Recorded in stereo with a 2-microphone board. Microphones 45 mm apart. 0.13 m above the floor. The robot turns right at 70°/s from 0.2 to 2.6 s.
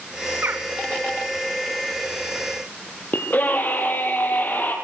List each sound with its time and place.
0.4 s a bird: 60° right (ahead or behind), 2.5 m; by 0.7 s 45° right (ahead or behind), 2.5 m
3.1 s a scream: 45° left (ahead or behind), 3.5 m